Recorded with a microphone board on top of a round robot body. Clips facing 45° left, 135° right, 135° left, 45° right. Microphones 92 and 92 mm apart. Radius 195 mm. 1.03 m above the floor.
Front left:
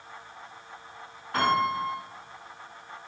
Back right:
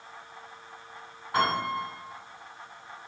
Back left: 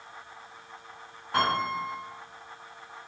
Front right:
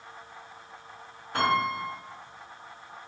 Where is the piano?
150° left, 1.4 m.